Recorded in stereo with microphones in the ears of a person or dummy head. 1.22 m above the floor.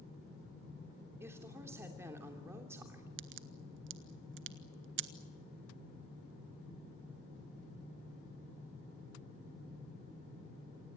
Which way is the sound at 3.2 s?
55° right (ahead or behind).